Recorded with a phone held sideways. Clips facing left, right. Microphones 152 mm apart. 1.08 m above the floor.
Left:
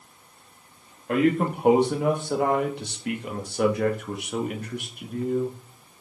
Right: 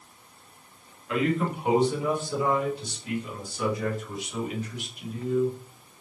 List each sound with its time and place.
1.1 s a man speaking: 55° left (ahead or behind), 2 m; by 5.6 s 50° left (ahead or behind), 2.5 m